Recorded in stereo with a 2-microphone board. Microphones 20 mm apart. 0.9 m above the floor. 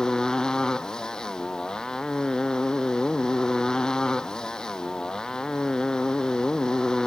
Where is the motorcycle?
35° left (ahead or behind).